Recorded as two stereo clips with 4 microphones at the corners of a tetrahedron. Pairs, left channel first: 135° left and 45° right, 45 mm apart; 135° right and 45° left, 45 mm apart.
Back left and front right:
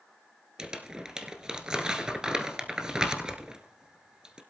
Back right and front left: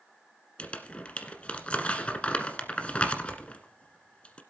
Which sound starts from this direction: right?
Crumpling, at 0.6 s.